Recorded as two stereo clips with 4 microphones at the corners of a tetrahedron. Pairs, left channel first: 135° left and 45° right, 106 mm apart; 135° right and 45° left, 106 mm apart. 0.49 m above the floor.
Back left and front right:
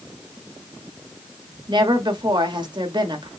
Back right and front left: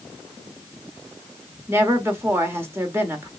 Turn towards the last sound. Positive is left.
turn(degrees=-20)